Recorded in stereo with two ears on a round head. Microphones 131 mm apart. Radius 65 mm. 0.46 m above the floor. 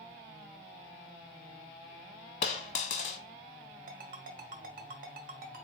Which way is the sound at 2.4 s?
55° left (ahead or behind).